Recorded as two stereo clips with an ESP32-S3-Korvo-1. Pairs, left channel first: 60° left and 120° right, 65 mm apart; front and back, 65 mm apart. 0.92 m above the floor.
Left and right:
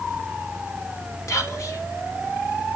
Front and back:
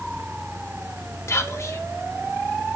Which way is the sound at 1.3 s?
35° left.